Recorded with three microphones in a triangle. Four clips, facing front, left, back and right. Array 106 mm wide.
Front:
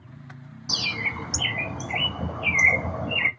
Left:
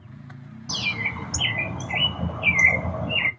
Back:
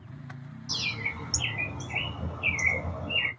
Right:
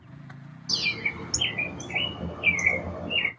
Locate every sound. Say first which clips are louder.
0.7 s a bird: left 3 dB, front 6 dB; 40° left, 0.6 m